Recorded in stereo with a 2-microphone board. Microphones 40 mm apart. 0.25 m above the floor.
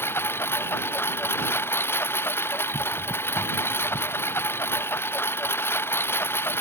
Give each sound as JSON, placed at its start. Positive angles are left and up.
{"t": 0.0, "sound": "a lawn mower", "side_deg": 90}